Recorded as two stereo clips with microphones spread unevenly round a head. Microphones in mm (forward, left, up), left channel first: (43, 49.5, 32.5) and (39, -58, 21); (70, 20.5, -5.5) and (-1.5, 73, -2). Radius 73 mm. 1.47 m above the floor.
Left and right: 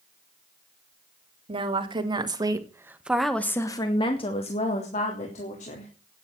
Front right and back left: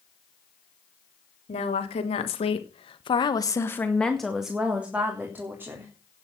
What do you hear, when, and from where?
1.5 s a woman speaking: 55° right, 3.5 m; by 5.9 s 80° left, 4 m